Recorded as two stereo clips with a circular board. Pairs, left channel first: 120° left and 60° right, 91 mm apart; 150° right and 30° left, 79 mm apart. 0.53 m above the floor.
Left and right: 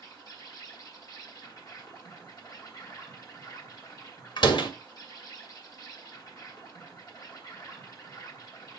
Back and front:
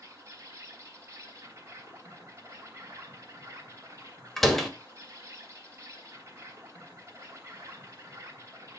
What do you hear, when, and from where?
0.0 s an insect: 80° left, 3 m
4.4 s a door slam: 125° left, 1.9 m